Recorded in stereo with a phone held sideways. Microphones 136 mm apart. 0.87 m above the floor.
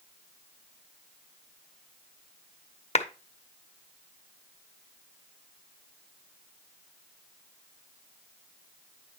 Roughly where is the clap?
Left.